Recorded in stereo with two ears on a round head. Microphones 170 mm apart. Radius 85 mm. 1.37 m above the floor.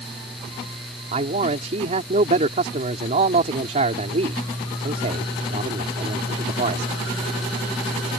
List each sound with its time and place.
1.1 s a man speaking: 35° right (ahead or behind)